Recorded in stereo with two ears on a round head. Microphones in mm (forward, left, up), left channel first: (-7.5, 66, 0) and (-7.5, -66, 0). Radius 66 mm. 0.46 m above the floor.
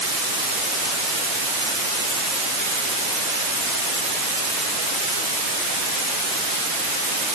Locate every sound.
Only background noise.